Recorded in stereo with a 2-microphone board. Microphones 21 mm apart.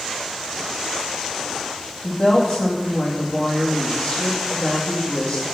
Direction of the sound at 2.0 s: 45° left (ahead or behind).